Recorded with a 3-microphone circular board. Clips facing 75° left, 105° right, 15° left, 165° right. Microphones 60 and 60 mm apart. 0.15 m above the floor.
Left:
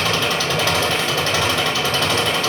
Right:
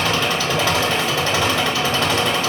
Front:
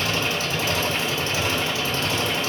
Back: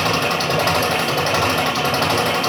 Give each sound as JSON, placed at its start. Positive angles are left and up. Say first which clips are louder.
{"t": 0.0, "sound": "an engine running", "louder": "even, back 6 dB", "azimuth_deg": 175, "distance_m": 4.0}